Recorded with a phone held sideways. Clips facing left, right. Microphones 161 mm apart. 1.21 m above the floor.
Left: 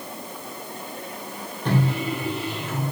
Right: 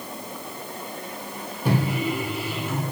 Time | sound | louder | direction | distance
1.6 | a microwave | even | 10° right (ahead or behind) | 0.5 m